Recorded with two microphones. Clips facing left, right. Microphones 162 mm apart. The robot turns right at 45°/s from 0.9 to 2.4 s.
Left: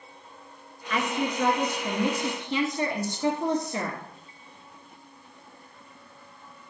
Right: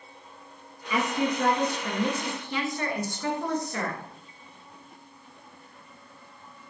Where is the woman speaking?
20° right, 1.5 m; by 4.0 s 45° left, 1.5 m.